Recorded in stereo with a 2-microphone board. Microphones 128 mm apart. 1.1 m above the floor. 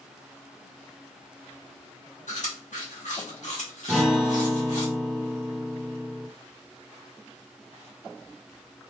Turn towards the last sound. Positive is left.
turn(degrees=0)  # may be behind; listen again after turning